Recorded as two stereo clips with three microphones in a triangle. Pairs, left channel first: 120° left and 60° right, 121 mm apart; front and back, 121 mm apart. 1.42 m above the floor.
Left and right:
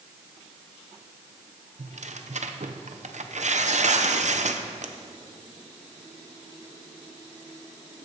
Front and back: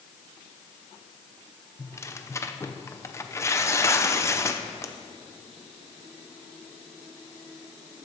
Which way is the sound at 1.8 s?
70° right.